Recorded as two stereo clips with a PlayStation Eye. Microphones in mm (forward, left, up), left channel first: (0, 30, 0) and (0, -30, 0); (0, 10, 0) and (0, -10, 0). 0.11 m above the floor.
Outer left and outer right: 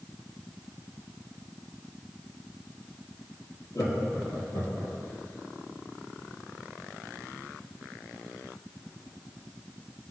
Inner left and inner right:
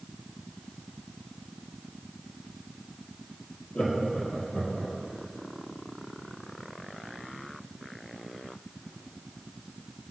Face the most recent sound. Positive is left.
turn(degrees=55)  # may be behind; listen again after turning